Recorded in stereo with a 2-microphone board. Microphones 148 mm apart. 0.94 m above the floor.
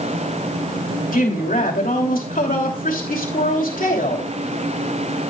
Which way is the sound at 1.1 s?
70° left (ahead or behind).